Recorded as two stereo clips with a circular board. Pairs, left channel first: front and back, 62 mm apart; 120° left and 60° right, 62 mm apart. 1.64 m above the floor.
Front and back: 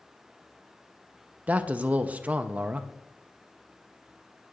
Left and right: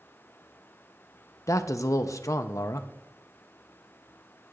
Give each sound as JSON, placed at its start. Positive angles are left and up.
{"t": 1.5, "sound": "a man speaking", "azimuth_deg": 120, "distance_m": 0.8}